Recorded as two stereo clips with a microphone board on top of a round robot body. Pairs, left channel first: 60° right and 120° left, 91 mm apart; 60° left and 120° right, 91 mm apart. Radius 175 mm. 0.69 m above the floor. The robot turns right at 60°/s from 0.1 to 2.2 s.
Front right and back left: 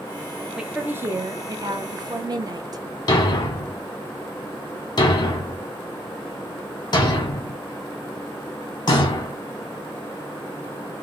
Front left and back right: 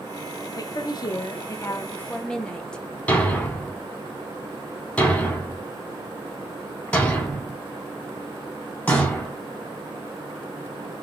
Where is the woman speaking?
40° left, 1.0 m; by 2.8 s 140° left, 1.0 m.